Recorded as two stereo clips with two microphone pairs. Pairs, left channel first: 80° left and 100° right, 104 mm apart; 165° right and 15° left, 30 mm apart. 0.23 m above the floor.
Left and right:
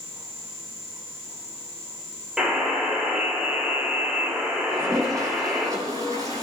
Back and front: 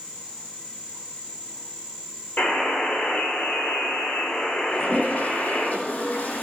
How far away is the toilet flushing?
About 8 m.